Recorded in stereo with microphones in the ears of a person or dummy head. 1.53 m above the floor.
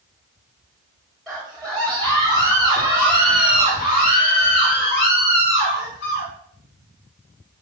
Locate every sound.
1.3 s a scream: centre (ahead or behind), 2.5 m; by 6.3 s 65° left (ahead or behind), 3.5 m